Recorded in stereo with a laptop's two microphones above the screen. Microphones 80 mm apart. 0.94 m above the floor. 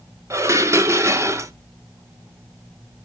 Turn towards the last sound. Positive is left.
turn(degrees=-35)  # may be behind; listen again after turning